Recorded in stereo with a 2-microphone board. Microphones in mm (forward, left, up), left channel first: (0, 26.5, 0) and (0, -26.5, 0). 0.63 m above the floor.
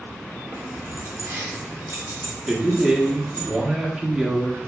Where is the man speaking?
10° right (ahead or behind), 0.7 m.